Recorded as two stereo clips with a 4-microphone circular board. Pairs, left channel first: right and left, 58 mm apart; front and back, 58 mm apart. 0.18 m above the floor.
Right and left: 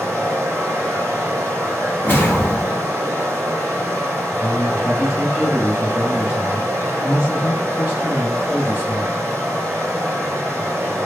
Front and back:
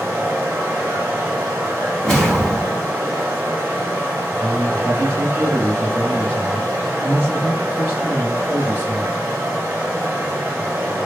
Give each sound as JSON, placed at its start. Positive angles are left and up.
{"t": 0.0, "sound": "running water", "azimuth_deg": 135, "distance_m": 1.3}
{"t": 2.0, "sound": "a whoosh", "azimuth_deg": -75, "distance_m": 1.0}
{"t": 4.4, "sound": "a man speaking", "azimuth_deg": 140, "distance_m": 1.6}